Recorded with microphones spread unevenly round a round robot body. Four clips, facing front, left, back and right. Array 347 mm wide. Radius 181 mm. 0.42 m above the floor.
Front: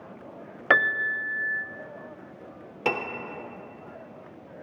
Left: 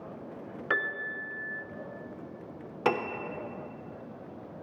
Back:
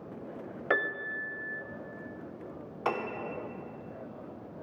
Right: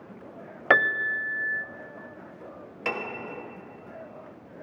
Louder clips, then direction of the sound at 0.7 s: Right 10 dB, front 8 dB; 35° right.